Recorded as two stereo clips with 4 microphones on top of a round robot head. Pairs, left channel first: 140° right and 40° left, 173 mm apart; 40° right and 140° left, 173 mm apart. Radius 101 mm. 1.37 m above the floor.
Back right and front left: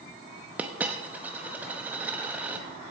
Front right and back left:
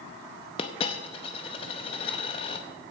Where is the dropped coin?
35° right, 0.7 m.